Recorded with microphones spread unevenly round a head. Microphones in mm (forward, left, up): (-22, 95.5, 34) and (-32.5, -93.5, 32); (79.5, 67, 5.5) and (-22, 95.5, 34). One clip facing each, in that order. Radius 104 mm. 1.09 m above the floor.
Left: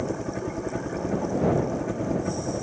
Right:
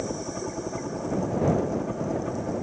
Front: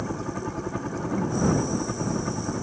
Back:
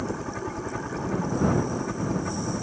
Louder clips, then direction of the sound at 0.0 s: Left 2 dB, even; 35° left.